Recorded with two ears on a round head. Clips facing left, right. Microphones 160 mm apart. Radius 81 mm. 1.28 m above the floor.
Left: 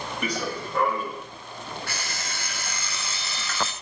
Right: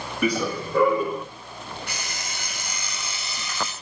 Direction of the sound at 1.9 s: 15° right (ahead or behind).